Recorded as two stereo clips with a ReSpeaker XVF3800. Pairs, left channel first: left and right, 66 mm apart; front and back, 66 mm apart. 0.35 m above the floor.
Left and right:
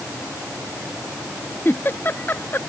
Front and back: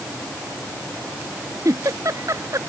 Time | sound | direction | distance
1.6 | a giggle | 145° left | ?